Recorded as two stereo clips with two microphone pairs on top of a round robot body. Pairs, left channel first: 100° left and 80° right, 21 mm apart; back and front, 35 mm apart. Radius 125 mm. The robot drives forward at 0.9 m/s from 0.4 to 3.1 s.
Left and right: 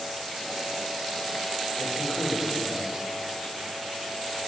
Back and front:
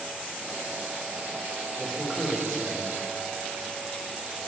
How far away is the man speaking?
About 3.5 m.